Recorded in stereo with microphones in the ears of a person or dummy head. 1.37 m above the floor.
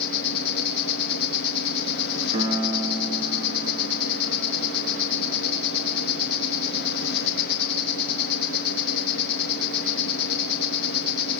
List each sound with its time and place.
0.0 s an insect: 60° left (ahead or behind), 4.5 m
2.3 s a piano: 40° right (ahead or behind), 4.5 m